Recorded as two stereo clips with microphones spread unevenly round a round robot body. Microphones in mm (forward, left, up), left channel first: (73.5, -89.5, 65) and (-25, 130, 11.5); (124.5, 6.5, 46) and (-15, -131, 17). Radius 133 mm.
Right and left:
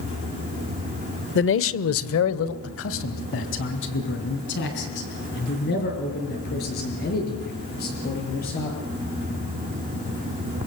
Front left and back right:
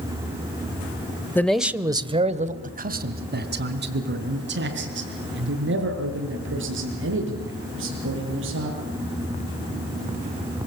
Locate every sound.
1.4 s a man speaking: 40° right, 1.3 m; by 8.8 s 125° right, 9 m